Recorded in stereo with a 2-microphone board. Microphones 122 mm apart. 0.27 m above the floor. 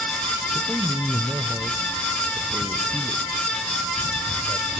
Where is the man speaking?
10° right (ahead or behind), 0.9 m.